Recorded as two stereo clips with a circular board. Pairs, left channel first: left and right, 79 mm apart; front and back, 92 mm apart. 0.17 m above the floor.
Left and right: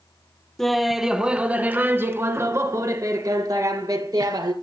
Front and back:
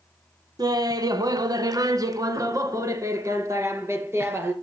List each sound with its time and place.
0.6 s laughter: 175° left, 1.4 m; by 4.5 s 120° right, 2.5 m